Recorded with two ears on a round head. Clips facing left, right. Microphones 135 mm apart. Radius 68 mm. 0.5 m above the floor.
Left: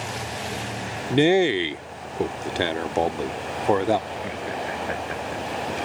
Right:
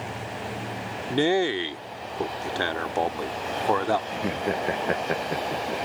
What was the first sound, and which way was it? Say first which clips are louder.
A man speaking: left 5 dB; 20° left (ahead or behind).